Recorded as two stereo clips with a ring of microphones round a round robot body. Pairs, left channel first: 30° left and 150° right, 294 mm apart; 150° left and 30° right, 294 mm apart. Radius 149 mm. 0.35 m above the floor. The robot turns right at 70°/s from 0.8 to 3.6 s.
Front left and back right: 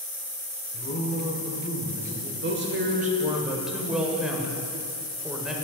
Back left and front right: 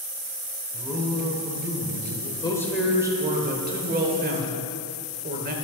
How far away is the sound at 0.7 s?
About 1.1 m.